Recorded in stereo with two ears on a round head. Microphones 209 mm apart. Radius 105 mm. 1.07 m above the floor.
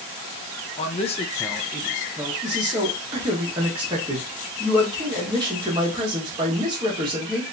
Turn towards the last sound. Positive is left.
turn(degrees=-20)  # may be behind; listen again after turning